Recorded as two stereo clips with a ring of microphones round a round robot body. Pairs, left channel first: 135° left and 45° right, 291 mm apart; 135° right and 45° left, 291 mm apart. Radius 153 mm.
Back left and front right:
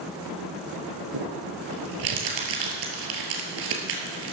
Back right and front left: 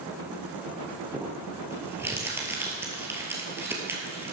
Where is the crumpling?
35° right, 2 m.